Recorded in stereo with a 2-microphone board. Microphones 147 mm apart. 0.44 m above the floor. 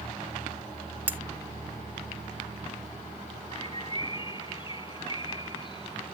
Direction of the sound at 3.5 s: 35° left (ahead or behind).